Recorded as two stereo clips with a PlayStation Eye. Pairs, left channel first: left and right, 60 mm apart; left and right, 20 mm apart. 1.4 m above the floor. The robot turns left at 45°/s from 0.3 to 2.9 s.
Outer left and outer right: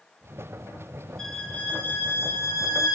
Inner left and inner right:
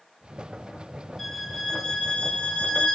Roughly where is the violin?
Behind.